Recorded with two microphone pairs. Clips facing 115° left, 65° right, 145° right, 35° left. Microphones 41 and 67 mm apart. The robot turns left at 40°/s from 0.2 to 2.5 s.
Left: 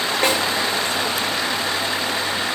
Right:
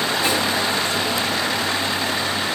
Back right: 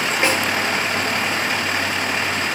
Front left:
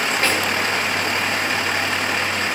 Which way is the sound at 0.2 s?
145° left.